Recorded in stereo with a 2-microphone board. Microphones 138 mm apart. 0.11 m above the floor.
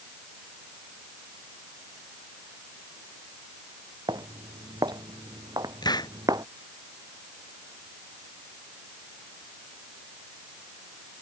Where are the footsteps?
30° right (ahead or behind).